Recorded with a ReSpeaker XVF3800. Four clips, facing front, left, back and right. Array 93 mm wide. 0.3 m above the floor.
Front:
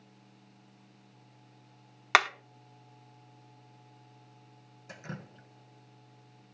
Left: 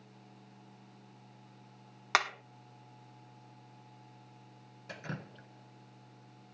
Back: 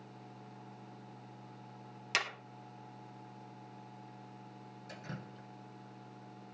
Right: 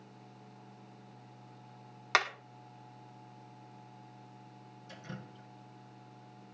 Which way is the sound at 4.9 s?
75° left.